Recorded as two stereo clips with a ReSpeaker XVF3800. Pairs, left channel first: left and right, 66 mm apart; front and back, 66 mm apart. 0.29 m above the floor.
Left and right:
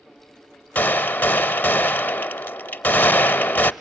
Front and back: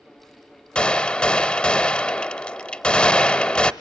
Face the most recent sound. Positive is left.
turn(degrees=60)